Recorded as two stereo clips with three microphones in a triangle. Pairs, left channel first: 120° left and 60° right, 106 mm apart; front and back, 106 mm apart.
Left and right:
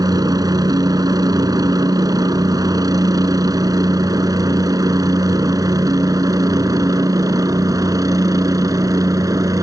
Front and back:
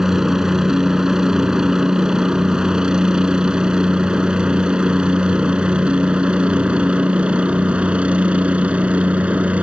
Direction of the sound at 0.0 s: 95° right.